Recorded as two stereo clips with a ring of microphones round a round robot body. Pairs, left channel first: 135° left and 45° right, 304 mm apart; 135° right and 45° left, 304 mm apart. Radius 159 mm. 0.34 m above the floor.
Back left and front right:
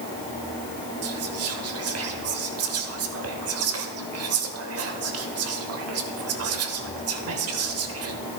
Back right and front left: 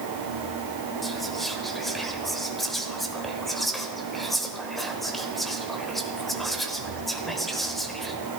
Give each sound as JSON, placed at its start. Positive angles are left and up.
{"t": 1.0, "sound": "whispering", "azimuth_deg": -45, "distance_m": 1.2}